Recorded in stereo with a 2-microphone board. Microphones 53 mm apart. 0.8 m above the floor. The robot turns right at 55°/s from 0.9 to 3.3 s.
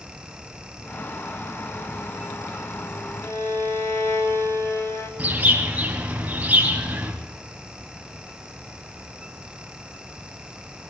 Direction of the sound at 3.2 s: 80° left.